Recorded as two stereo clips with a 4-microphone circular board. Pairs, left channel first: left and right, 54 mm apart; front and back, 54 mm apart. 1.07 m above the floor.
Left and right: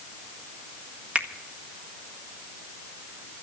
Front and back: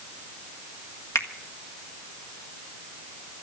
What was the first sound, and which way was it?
A finger snap, 25° right.